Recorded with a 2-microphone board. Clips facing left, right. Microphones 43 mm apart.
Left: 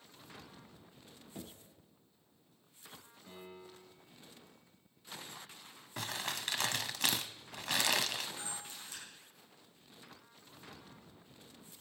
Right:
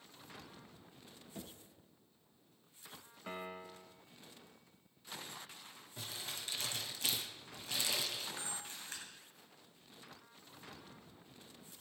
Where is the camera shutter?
45° right (ahead or behind), 9 m.